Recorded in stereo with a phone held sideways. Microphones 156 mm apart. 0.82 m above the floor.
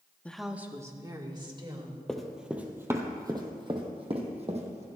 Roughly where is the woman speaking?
Centre.